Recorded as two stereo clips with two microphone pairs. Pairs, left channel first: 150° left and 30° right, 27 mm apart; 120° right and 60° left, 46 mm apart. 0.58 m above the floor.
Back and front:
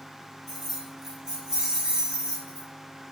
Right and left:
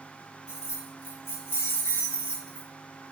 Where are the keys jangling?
125° right, 1.4 m; by 2.7 s 50° right, 1.2 m.